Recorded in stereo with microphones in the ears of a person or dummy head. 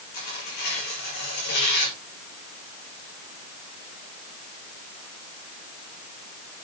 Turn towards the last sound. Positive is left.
turn(degrees=50)  # may be behind; listen again after turning